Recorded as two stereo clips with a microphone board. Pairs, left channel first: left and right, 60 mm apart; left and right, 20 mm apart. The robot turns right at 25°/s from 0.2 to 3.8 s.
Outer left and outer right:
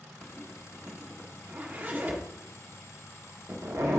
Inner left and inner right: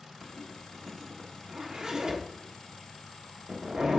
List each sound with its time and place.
0.2 s a zipper: centre (ahead or behind), 1.4 m; by 4.0 s 55° right (ahead or behind), 1.4 m